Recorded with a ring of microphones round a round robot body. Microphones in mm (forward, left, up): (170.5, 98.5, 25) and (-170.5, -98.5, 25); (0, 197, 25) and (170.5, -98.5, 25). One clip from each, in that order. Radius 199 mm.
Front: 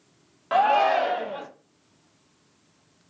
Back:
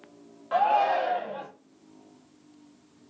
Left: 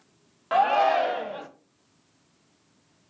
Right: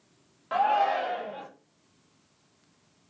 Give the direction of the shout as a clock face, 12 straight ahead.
10 o'clock.